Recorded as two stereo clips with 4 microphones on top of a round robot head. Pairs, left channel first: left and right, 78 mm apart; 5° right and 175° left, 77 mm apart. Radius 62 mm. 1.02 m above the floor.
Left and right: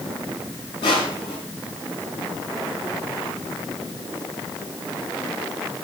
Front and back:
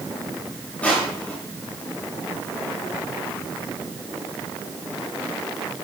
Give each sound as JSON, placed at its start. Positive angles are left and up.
{"t": 0.8, "sound": "crushing", "azimuth_deg": 65, "distance_m": 8.0}